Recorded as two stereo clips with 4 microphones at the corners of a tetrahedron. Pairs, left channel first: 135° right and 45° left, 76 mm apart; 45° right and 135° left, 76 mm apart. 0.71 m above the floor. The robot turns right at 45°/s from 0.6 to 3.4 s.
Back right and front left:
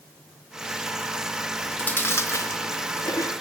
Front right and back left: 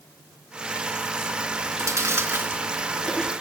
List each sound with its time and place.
1.5 s chewing: 145° left, 1.3 m; by 3.3 s 130° right, 1.3 m